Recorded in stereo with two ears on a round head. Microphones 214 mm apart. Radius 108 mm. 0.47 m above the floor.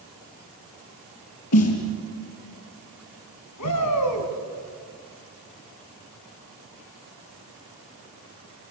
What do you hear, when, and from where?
1.5 s a snare drum: 65° left (ahead or behind), 4.5 m
3.6 s a shout: 75° left (ahead or behind), 5 m